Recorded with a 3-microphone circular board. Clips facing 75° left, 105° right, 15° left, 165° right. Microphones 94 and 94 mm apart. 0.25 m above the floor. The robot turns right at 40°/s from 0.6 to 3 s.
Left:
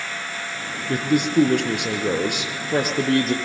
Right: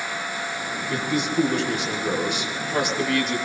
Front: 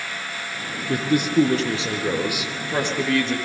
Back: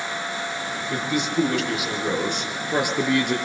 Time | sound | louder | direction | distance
0.9 | a man speaking | left 6 dB, front 6 dB | 40° left | 4.5 m